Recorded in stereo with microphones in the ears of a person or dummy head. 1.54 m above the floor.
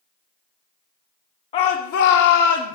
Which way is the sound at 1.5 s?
30° left (ahead or behind).